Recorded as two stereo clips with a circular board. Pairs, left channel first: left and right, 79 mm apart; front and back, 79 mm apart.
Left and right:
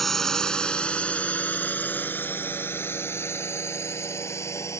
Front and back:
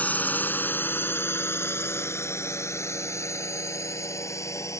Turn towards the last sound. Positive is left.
turn(degrees=45)